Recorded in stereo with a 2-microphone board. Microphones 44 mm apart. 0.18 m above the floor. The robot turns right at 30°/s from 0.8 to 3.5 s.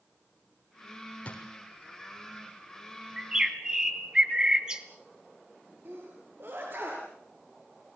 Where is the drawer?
30° left (ahead or behind), 3 m; by 1.4 s 25° left (ahead or behind), 3 m.